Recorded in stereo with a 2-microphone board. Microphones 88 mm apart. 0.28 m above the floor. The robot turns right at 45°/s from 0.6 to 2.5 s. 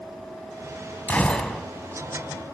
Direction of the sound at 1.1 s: 15° left (ahead or behind).